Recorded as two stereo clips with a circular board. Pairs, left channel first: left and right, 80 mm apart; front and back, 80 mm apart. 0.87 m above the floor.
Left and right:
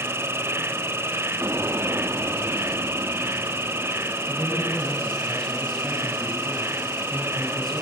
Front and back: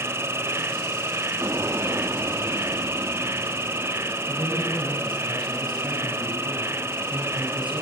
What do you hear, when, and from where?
0.0 s an insect: 135° right, 0.8 m
1.4 s an explosion: 135° right, 1.3 m
4.3 s a man speaking: 175° left, 7.5 m